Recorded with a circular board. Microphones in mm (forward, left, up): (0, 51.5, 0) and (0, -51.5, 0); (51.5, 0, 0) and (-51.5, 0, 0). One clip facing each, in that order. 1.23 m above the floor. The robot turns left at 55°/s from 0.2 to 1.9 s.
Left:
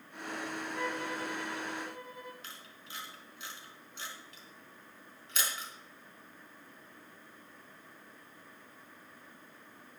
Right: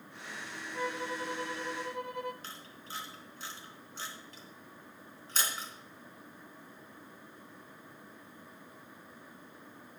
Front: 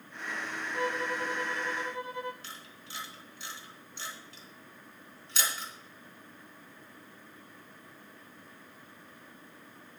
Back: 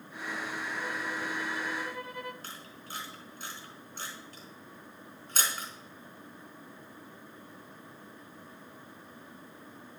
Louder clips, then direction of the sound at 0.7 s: Right 3 dB, front 7 dB; 5° right.